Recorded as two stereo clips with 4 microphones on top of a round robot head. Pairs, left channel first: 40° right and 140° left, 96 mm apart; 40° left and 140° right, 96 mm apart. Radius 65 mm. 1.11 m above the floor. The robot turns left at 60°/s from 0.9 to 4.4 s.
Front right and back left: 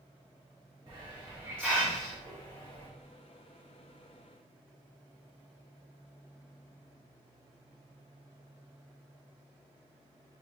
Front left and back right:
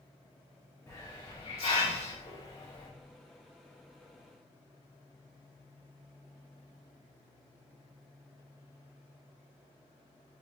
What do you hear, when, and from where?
0.9 s a hiss: 110° left, 1.8 m; by 2.9 s 10° right, 1.8 m